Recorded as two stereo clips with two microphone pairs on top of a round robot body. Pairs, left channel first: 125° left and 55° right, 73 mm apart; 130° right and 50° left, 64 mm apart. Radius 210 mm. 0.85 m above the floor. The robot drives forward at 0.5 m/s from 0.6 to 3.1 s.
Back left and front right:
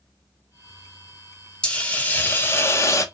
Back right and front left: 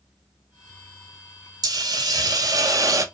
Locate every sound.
1.6 s a hiss: 50° left, 1.5 m; by 3.0 s 85° left, 1.2 m